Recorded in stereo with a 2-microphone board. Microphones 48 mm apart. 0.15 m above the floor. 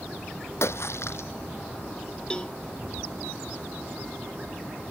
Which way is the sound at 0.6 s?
70° left (ahead or behind).